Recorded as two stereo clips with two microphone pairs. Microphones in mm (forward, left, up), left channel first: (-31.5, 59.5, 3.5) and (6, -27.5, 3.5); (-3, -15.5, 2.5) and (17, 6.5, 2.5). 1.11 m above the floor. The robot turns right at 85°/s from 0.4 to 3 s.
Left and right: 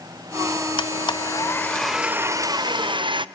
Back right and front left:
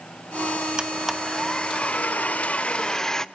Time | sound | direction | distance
0.8 | a blender | 105° left | 0.5 m